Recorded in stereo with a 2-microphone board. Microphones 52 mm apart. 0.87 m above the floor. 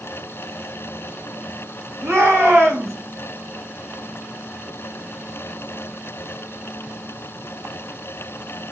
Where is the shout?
65° right (ahead or behind), 1.3 m.